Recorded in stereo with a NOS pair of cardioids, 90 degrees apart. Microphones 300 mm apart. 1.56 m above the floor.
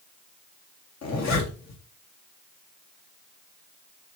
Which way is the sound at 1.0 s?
60° left.